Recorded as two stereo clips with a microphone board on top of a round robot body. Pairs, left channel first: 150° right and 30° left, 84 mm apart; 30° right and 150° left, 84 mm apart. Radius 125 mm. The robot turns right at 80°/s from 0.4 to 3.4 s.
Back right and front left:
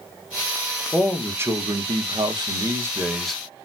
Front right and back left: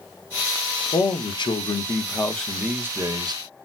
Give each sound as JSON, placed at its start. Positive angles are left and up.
{"t": 0.9, "sound": "a man speaking", "azimuth_deg": -65, "distance_m": 0.8}